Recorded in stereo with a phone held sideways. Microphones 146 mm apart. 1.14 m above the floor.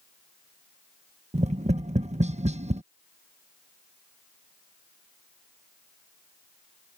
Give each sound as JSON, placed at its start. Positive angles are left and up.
{"t": 1.3, "sound": "tapping", "side_deg": -50}